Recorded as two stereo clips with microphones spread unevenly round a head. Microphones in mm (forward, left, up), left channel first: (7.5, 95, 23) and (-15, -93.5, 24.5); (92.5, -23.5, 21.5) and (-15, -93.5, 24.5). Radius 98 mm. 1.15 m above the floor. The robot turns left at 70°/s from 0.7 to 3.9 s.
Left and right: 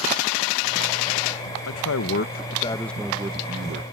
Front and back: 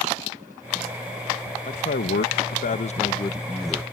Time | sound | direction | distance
1.7 | a man speaking | 85° left | ?